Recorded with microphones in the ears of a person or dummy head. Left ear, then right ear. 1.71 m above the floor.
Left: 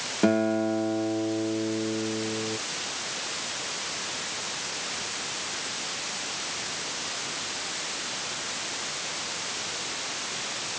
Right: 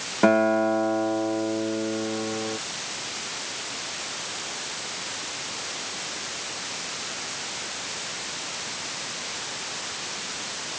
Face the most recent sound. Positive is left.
turn(degrees=-40)  # may be behind; listen again after turning